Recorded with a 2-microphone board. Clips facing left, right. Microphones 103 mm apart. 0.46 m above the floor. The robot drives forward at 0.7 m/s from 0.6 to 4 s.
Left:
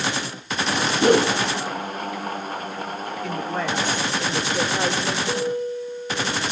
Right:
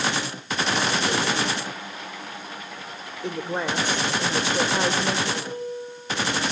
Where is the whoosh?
50° left (ahead or behind), 0.8 m; by 1.4 s 40° left (ahead or behind), 0.9 m.